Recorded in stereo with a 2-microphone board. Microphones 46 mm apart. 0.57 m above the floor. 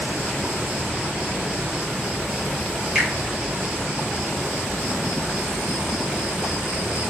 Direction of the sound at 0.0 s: 15° right (ahead or behind).